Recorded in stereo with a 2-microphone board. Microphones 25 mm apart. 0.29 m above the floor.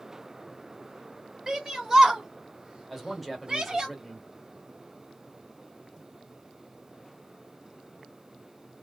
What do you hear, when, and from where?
1.5 s a shout: 15° right (ahead or behind), 1.7 m; by 3.9 s 25° right (ahead or behind), 1.7 m
2.9 s a man speaking: 5° right (ahead or behind), 1.4 m